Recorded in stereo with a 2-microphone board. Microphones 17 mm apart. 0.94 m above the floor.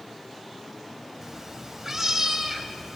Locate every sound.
1.2 s a cat meowing: 15° right (ahead or behind), 2.0 m